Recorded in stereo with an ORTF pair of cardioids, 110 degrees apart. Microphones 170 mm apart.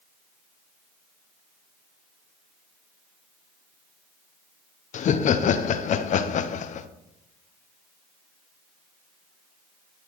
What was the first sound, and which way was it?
Laughter, 50° left.